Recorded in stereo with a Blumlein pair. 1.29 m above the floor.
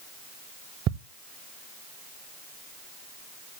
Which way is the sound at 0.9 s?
35° right.